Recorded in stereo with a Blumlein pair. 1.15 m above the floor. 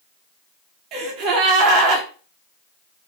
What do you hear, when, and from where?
0.9 s a gasp: 35° right, 0.7 m